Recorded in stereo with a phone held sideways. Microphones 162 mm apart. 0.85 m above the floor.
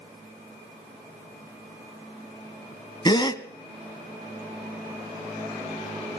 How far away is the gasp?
About 0.9 m.